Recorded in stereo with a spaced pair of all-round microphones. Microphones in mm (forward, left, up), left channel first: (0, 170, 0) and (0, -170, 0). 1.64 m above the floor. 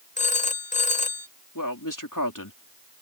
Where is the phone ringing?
20° left (ahead or behind).